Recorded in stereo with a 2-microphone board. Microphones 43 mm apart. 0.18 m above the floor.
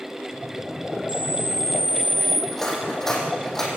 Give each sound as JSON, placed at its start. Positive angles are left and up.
{"t": 1.1, "sound": "a camera shutter", "side_deg": -50, "distance_m": 4.5}
{"t": 2.5, "sound": "cutlery clinking", "side_deg": 10, "distance_m": 5.0}